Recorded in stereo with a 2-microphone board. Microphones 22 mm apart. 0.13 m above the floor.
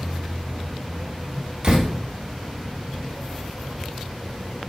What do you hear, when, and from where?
1.6 s a door slam: 35° right (ahead or behind), 3 m